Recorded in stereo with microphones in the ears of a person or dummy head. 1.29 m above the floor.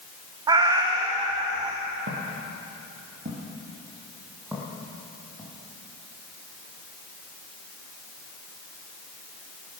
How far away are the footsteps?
About 2 m.